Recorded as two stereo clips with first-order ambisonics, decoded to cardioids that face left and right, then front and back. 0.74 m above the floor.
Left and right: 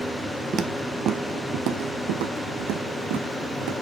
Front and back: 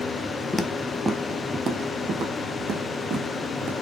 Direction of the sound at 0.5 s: 80° right.